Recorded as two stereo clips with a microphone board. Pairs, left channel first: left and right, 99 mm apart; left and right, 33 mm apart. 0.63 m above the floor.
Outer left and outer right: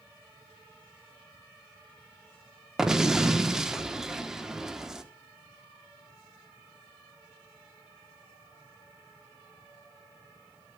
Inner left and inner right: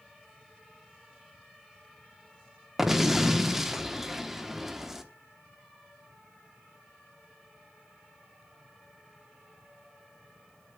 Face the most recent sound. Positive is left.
turn(degrees=-5)  # may be behind; listen again after turning